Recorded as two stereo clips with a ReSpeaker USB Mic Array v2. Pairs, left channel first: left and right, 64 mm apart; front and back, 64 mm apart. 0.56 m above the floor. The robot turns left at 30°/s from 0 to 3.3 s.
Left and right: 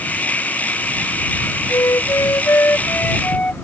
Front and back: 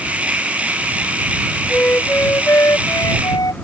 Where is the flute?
70° left; by 3.5 s 20° left.